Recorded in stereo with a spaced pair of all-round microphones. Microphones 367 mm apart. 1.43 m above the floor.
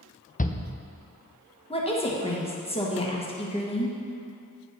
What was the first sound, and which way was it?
A shout, 25° left (ahead or behind).